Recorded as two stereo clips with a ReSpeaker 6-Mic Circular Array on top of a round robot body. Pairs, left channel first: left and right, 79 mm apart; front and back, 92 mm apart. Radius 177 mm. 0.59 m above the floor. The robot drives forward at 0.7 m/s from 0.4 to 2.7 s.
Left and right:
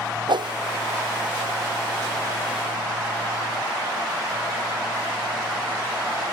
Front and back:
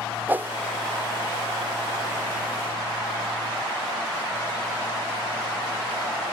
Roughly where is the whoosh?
Right.